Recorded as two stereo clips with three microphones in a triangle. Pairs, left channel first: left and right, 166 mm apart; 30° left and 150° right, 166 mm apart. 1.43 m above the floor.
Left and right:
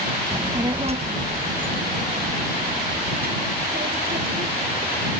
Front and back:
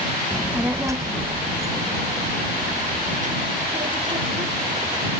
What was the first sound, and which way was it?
A child speaking, 40° right.